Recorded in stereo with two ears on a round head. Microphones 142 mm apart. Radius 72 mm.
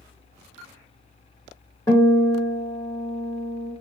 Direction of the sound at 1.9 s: 25° left (ahead or behind).